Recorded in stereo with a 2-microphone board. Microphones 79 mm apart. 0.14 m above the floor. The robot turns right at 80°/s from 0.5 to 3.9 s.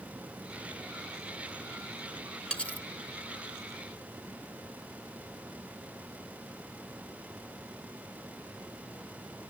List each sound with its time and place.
2.5 s cutlery clinking: 10° left (ahead or behind), 0.8 m; by 2.9 s 25° left (ahead or behind), 0.8 m